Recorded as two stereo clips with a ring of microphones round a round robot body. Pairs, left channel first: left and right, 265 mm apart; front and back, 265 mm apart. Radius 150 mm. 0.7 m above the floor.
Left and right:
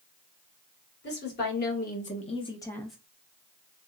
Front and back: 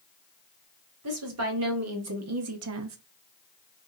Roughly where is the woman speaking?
Behind left.